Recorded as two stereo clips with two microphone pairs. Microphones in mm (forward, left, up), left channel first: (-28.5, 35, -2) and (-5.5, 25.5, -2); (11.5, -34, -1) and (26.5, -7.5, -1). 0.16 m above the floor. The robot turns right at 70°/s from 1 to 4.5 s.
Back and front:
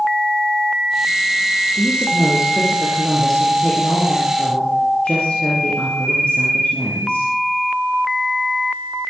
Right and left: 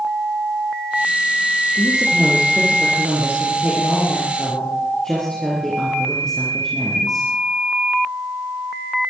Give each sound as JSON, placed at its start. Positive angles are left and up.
{"t": 1.8, "sound": "a woman speaking", "azimuth_deg": -25, "distance_m": 4.0}